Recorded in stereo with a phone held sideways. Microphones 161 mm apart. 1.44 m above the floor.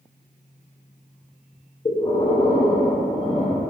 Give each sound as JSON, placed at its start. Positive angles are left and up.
{"t": 1.9, "sound": "breathing", "side_deg": 35, "distance_m": 0.9}